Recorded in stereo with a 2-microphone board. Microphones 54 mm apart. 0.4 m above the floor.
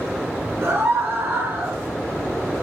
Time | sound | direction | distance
0.6 | a scream | 50° right (ahead or behind) | 6.5 m